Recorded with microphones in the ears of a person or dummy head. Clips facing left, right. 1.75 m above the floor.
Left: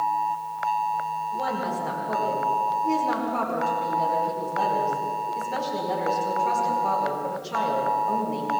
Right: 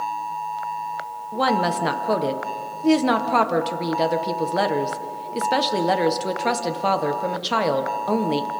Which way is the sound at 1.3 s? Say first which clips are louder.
Right 9 dB; 75° right (ahead or behind).